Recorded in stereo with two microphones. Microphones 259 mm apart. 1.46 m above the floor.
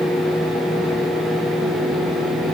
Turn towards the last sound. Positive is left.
No sound to turn to.